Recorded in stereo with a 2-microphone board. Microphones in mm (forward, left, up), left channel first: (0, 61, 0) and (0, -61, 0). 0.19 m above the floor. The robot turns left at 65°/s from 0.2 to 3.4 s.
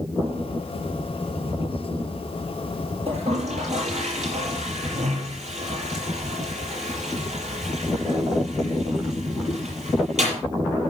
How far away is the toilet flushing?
About 6 m.